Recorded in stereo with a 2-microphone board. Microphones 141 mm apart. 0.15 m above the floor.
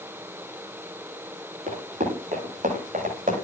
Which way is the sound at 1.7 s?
65° right (ahead or behind).